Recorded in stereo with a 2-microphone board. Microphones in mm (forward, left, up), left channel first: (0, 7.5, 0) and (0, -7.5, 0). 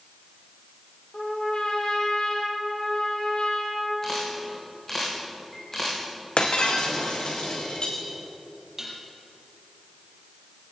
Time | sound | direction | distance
1.1 | a trumpet | 75° left (ahead or behind) | 5 m
4.0 | a camera shutter | 20° left (ahead or behind) | 7 m
6.4 | breaking glass | 75° left (ahead or behind) | 3.5 m
8.8 | dishes clattering | 20° right (ahead or behind) | 5 m